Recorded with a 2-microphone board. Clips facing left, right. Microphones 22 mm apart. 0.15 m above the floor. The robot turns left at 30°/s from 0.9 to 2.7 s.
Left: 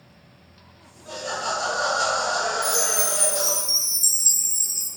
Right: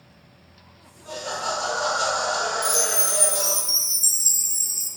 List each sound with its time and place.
1.1 s laughter: 20° right (ahead or behind), 1.6 m; by 3.6 s 5° right (ahead or behind), 1.6 m
2.6 s a chime: 20° left (ahead or behind), 0.9 m